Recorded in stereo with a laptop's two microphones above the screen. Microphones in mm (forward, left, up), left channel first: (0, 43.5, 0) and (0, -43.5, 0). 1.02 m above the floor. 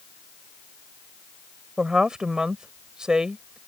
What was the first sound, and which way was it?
A woman speaking, 10° right (ahead or behind).